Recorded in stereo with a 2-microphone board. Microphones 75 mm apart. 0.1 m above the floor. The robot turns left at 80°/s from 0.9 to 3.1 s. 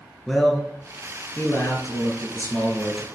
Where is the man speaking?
165° left, 1.5 m; by 3.0 s 5° right, 1.5 m.